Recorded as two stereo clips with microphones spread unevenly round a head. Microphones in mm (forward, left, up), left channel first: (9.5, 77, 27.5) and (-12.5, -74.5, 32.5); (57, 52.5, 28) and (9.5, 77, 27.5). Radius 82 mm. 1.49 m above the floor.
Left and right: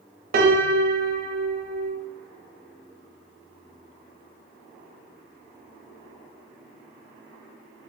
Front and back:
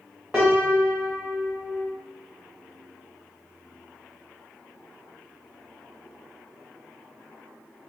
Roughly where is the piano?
Behind right.